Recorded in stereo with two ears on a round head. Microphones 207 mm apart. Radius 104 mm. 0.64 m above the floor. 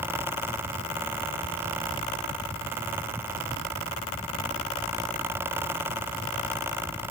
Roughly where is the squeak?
I don't hear a squeak.